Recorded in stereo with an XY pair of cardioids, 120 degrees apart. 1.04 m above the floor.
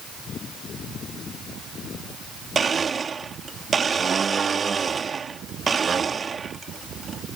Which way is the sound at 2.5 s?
30° right.